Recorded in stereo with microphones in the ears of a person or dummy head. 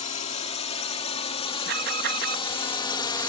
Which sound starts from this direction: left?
A drone, at 0.0 s.